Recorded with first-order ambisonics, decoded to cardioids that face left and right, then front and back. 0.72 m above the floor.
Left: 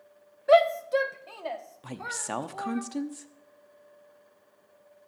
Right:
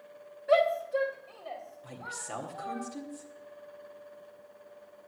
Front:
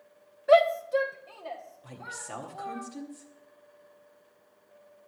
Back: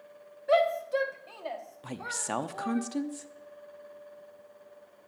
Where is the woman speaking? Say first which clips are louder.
Left 7 dB, back 6 dB; 135° left, 0.8 m.